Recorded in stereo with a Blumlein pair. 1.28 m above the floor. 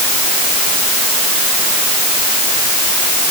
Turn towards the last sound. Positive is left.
No sound to turn to.